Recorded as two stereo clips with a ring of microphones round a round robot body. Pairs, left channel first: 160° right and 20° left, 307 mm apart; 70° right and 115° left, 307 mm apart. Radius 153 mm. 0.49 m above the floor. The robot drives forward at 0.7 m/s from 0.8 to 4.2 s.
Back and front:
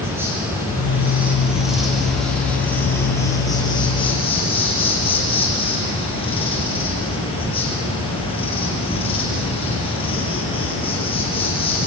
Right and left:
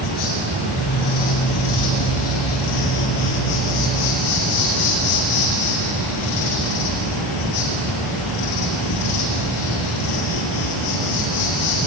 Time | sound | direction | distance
0.0 | an insect | 60° right | 6 m